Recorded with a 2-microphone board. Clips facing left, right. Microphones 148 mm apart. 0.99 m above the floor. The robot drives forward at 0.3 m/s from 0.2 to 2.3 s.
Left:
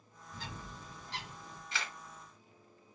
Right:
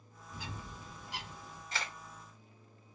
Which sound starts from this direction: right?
A camera shutter, at 1.7 s.